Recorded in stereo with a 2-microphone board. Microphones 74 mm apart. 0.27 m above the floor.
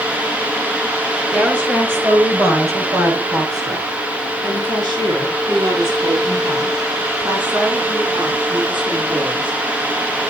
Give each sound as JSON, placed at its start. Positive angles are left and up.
{"t": 1.3, "sound": "a woman speaking", "side_deg": -15, "distance_m": 6.5}